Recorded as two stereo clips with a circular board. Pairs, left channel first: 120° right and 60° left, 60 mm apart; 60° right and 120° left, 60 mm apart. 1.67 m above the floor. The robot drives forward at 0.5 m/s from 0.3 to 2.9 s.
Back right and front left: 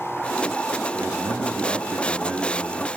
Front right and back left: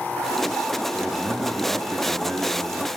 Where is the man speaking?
40° left, 1.0 m; by 2.9 s 115° left, 0.8 m.